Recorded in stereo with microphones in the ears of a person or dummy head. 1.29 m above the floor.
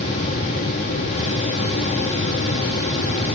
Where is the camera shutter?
No camera shutter in this recording.